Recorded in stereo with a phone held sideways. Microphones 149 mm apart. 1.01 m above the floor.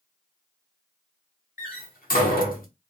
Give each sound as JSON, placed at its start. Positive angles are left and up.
{"t": 1.6, "sound": "a door slam", "side_deg": 70, "distance_m": 0.9}